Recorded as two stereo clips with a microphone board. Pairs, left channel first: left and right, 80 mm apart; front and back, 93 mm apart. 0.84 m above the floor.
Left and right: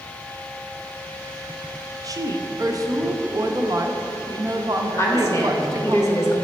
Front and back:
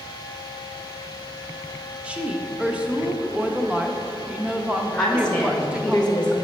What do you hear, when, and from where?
2.0 s a woman speaking: 105° right, 0.6 m
5.0 s a woman speaking: 70° left, 0.9 m